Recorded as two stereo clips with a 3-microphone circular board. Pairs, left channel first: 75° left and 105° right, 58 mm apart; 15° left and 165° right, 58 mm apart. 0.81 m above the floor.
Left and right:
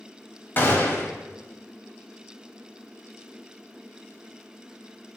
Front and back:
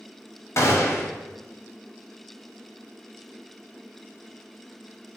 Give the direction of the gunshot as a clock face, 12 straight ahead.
11 o'clock.